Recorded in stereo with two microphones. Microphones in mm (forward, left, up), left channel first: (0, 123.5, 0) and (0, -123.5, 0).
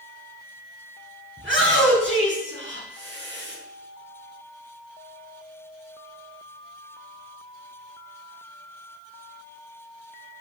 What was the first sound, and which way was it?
A shout, 55° right (ahead or behind).